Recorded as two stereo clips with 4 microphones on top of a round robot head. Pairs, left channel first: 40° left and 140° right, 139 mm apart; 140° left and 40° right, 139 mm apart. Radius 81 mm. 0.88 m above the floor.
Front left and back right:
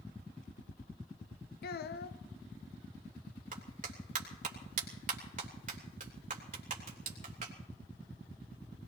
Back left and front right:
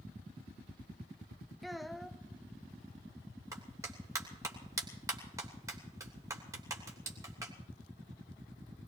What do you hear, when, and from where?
1.6 s a child speaking: 50° left, 0.6 m
3.5 s a clap: 105° right, 3 m